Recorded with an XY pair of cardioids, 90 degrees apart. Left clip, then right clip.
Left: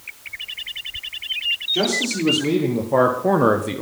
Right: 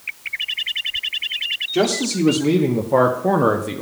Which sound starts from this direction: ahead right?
A man speaking, at 1.7 s.